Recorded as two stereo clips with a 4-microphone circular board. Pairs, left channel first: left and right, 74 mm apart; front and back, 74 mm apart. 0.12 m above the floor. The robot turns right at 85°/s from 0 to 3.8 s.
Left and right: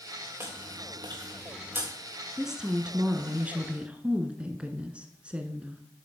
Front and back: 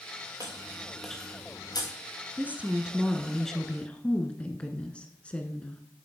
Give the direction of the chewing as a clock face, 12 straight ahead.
5 o'clock.